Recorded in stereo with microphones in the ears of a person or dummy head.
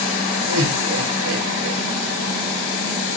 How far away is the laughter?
About 5.5 m.